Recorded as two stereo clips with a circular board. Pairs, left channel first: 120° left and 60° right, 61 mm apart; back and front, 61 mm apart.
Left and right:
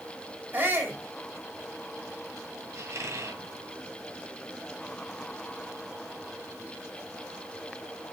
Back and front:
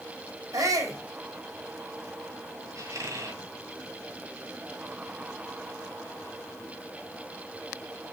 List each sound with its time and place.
0.5 s a shout: 5° right, 3 m
2.8 s a squeak: 25° right, 2.0 m